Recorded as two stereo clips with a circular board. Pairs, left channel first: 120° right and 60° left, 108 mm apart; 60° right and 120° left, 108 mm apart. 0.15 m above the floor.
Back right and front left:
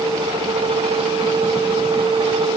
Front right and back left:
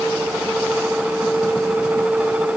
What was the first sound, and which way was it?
Only background noise.